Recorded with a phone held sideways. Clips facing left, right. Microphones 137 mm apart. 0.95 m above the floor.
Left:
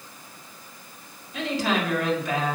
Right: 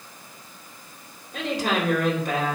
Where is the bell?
I don't hear a bell.